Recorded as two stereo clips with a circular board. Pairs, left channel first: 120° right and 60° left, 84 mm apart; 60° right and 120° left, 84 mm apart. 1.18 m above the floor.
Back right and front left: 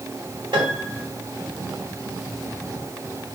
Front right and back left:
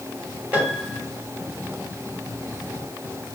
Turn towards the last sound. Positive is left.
turn(degrees=50)